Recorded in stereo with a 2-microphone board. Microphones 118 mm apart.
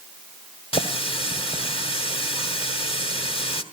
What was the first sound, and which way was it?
A running tap, 50° left (ahead or behind).